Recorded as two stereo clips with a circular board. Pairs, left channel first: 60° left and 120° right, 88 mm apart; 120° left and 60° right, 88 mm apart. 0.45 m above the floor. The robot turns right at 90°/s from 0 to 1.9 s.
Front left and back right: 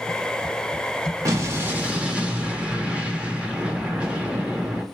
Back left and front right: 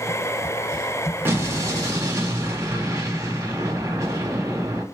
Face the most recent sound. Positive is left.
turn(degrees=-50)